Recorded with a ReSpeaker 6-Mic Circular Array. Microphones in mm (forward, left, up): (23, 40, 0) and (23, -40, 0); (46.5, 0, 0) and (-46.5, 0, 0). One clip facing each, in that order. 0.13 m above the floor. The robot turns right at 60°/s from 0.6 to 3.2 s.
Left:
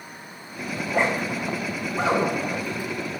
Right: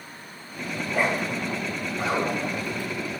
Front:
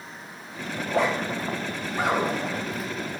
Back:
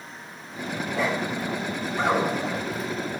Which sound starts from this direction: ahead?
A zipper, at 0.8 s.